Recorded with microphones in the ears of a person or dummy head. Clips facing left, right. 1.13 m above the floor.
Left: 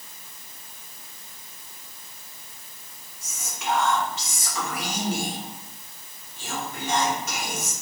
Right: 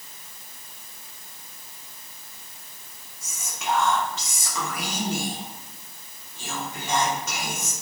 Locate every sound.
3.2 s whispering: 65° right (ahead or behind), 0.9 m